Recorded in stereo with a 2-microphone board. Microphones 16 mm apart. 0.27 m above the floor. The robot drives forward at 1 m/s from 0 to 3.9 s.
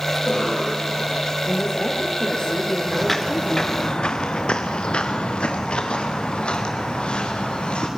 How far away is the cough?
About 7 m.